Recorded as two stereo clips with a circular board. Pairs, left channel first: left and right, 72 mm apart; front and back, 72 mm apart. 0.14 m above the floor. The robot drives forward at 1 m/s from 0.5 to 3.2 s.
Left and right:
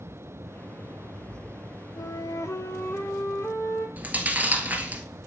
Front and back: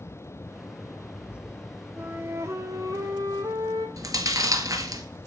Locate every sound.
2.0 s a flute: 110° left, 1.1 m; by 3.9 s 150° left, 1.9 m
4.0 s chewing: 155° right, 1.9 m